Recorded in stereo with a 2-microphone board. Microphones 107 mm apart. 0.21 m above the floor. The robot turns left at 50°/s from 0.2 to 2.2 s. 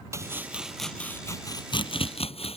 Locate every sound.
0.1 s chopping: 30° right (ahead or behind); by 2.6 s 70° left (ahead or behind)